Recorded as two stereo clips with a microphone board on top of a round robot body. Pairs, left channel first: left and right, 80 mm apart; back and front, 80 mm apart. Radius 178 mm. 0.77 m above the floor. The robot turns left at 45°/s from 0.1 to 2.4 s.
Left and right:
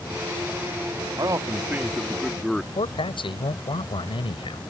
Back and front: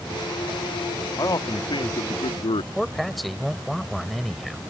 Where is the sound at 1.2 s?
130° right; by 2.6 s 175° left.